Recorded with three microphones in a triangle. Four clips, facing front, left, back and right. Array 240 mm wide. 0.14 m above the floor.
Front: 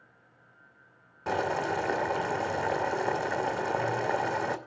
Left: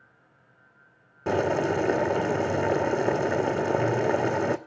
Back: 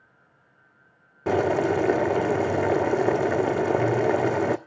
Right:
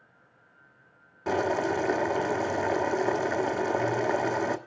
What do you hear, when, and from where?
1.3 s boiling: 155° left, 1.2 m